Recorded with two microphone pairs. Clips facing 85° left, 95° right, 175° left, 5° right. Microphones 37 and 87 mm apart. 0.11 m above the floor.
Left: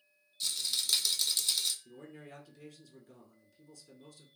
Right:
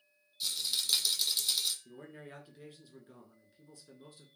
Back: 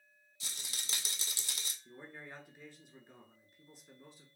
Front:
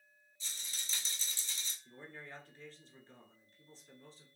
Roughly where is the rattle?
Behind.